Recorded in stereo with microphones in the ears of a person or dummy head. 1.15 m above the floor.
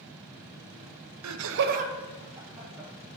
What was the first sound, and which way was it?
Laughter, 80° right.